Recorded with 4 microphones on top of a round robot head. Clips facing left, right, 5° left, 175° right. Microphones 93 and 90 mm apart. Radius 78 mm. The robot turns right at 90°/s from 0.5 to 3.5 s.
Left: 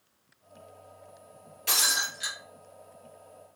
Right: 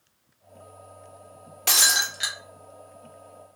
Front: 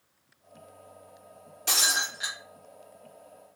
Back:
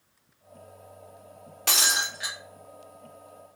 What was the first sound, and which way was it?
Breaking glass, 120° right.